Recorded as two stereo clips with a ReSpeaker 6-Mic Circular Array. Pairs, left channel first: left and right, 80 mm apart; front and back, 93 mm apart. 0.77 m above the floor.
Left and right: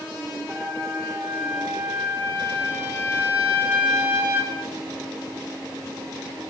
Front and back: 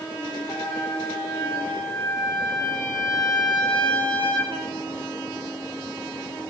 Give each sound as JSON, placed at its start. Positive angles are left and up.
{"t": 0.5, "sound": "a trumpet", "azimuth_deg": -30, "distance_m": 3.0}